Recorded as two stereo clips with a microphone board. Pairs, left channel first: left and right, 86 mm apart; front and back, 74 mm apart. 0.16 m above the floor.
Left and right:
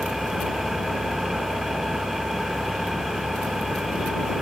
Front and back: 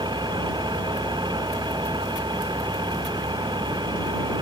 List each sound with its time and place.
0.0 s an engine running: straight behind